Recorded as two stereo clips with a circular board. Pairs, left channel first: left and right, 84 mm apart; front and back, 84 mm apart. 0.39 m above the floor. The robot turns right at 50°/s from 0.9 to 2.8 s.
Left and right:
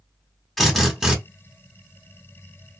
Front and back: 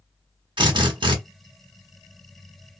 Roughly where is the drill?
Behind.